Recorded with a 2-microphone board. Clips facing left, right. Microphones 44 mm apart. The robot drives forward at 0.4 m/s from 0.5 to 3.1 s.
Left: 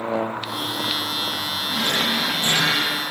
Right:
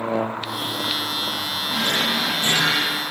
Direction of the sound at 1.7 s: 55° right (ahead or behind).